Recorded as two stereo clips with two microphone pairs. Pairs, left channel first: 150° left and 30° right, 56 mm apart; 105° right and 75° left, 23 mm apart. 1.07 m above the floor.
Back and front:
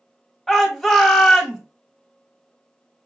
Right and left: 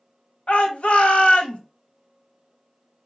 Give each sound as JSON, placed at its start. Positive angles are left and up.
{"t": 0.5, "sound": "a shout", "azimuth_deg": -125, "distance_m": 1.0}